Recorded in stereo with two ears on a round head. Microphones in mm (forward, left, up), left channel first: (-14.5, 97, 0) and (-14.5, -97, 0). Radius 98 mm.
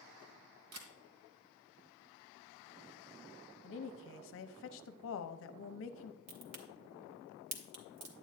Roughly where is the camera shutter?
Right.